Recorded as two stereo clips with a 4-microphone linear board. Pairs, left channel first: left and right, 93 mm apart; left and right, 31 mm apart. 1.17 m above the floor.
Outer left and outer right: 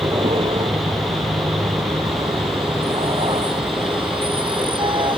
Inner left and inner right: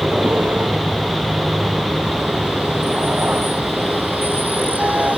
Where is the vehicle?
80° right; by 5.2 s 65° right (ahead or behind).